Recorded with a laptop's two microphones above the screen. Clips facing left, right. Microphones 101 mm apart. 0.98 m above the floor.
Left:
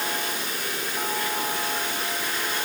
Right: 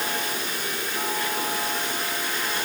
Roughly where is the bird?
No bird in this recording.